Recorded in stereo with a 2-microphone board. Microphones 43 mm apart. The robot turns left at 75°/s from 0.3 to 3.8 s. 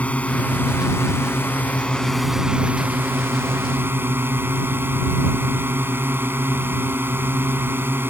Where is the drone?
145° left; by 8.1 s 120° right.